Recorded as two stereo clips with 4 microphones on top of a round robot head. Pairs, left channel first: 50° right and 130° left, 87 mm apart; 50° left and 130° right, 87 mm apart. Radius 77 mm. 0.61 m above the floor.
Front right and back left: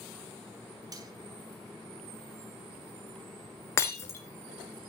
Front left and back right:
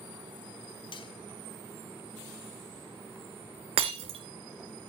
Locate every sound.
0.9 s cutlery clinking: 80° left, 1.2 m
3.8 s breaking glass: 115° right, 2 m